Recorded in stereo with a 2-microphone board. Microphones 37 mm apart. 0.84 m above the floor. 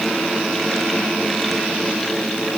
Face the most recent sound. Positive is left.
No sound to turn to.